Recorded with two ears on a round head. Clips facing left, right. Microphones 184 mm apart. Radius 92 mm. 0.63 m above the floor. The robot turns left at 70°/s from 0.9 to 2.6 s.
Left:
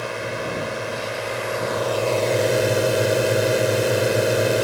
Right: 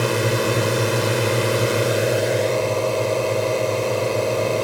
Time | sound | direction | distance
0.0 | a drone | 75° right | ?